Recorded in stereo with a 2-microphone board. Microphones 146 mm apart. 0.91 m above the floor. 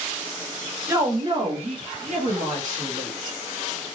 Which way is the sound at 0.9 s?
20° right (ahead or behind).